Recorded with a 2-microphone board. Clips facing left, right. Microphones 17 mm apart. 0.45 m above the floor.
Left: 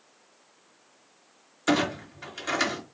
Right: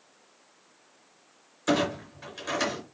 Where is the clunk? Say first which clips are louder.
Left 1 dB; 15° left (ahead or behind), 4 m.